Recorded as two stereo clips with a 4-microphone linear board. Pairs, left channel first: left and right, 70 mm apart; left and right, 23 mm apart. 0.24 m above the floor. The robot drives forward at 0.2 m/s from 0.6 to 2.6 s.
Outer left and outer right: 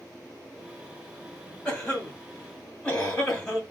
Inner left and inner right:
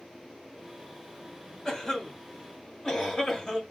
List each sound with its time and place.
1.6 s a cough: 15° left (ahead or behind), 1.4 m